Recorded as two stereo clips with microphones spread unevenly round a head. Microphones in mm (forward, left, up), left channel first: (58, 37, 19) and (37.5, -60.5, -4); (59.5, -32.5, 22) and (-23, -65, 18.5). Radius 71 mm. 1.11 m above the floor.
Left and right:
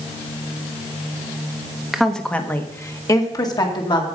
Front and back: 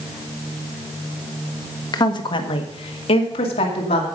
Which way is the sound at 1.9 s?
15° right.